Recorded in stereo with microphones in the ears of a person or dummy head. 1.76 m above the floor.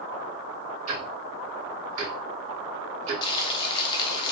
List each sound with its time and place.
0.9 s ticking: 45° right (ahead or behind), 2.5 m
3.2 s frying: 30° left (ahead or behind), 0.8 m